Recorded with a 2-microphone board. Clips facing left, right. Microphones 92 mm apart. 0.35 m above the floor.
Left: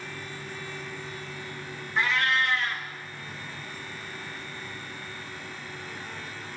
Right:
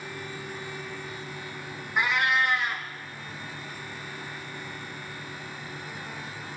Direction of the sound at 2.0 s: 20° right (ahead or behind).